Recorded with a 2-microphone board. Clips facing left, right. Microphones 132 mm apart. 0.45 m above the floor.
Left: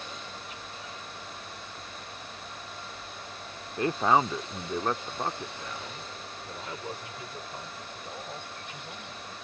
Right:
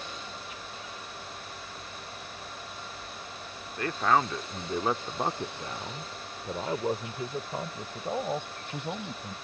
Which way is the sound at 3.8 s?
25° left (ahead or behind).